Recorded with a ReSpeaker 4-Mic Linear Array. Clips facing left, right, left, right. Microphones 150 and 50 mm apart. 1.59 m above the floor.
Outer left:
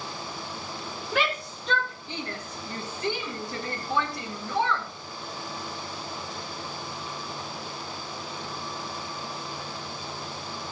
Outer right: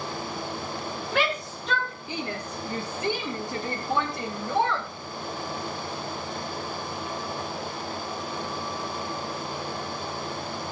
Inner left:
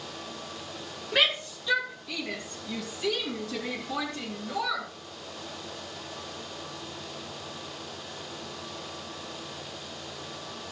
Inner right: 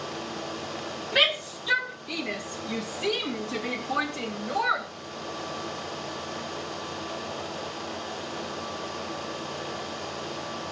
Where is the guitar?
No guitar in this recording.